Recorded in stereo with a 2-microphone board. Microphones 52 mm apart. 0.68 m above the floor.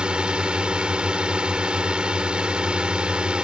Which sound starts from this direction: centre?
A drone, at 0.0 s.